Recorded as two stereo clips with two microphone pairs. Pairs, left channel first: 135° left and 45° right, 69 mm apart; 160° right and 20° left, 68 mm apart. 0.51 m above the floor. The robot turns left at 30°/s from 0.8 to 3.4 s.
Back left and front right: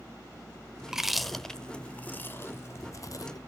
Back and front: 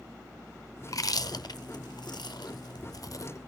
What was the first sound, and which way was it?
Chewing, 125° right.